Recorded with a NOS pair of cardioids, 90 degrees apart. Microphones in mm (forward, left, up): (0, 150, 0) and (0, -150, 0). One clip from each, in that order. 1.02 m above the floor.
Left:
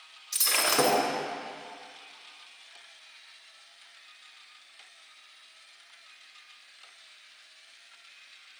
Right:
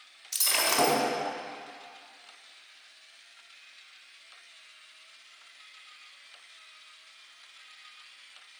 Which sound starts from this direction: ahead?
Breaking glass, at 0.3 s.